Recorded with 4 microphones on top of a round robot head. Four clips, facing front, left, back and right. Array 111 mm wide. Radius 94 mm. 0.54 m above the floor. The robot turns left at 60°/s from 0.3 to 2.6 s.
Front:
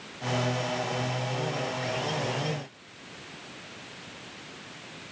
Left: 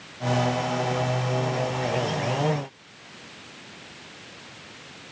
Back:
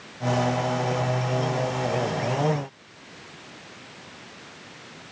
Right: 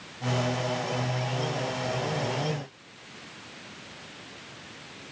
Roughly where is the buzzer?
No buzzer in this recording.